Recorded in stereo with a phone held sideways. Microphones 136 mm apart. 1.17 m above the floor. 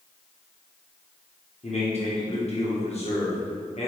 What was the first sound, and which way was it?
A man speaking, 50° left (ahead or behind).